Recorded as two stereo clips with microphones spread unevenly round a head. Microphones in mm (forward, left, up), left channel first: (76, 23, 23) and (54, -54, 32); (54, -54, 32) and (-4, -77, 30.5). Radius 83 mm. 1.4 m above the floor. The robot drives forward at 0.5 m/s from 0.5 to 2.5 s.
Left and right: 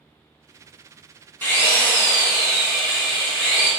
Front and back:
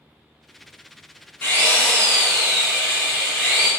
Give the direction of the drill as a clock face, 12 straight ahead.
11 o'clock.